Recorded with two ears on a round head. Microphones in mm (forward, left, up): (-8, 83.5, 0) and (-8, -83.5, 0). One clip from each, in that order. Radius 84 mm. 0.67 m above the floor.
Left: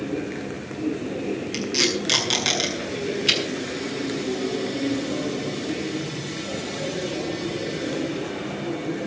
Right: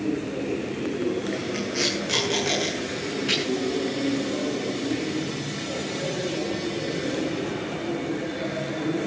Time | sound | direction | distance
1.5 | tape being pulled | 85° left | 7 m